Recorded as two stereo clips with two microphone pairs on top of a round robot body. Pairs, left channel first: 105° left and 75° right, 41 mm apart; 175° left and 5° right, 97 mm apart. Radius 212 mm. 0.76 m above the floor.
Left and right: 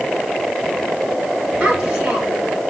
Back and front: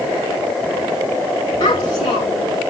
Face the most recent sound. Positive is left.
turn(degrees=-155)